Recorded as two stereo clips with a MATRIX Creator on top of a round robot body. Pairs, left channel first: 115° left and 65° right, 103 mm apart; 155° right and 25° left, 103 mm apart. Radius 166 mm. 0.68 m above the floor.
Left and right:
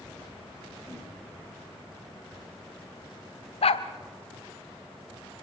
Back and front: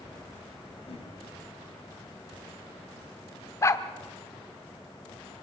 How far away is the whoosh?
About 6.5 m.